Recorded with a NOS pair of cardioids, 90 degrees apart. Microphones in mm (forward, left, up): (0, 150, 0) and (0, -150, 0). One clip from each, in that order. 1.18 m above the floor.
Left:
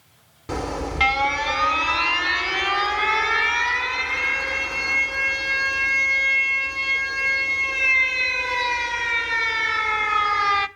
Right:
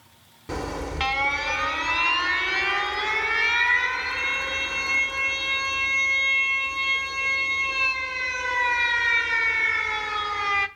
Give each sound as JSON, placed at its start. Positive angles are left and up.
{"t": 0.5, "sound": "an alarm", "azimuth_deg": 15, "distance_m": 0.9}